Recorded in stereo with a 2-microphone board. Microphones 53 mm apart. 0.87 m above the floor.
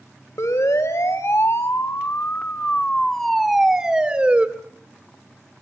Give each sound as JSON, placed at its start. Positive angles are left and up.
{"t": 0.4, "sound": "a siren", "side_deg": 80, "distance_m": 3.0}